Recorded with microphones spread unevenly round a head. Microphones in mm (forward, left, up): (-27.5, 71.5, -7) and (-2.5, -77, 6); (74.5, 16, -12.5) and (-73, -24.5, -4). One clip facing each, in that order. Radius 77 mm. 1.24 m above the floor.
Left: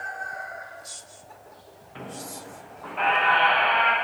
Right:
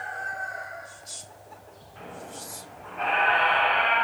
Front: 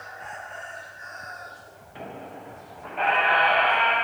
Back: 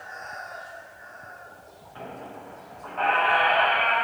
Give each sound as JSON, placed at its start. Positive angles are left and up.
{"t": 1.9, "sound": "a squeak", "azimuth_deg": 85, "distance_m": 0.9}